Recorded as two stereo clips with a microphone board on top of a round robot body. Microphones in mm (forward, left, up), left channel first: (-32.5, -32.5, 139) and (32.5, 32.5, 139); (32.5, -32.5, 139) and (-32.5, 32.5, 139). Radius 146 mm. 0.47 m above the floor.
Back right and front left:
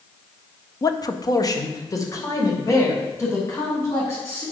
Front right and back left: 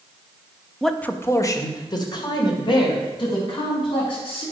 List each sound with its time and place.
0.8 s a man speaking: 135° right, 1.1 m; by 4.4 s 75° right, 6 m